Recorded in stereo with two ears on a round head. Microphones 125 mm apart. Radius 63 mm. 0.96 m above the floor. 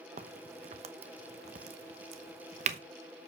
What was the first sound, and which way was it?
A crack, 50° right (ahead or behind).